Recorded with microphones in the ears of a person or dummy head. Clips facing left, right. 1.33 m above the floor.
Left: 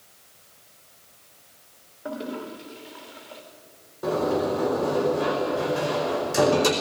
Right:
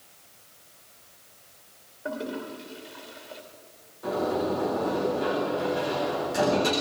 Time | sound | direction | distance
2.0 | a toilet flushing | 5° left (ahead or behind) | 3 m
4.0 | a sliding door | 65° left (ahead or behind) | 5 m